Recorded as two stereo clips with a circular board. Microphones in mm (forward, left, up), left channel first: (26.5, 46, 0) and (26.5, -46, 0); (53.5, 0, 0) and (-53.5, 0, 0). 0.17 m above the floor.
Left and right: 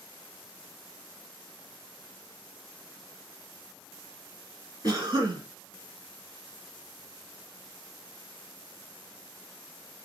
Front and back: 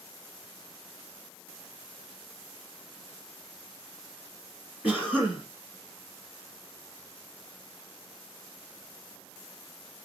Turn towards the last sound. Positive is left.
turn(degrees=-110)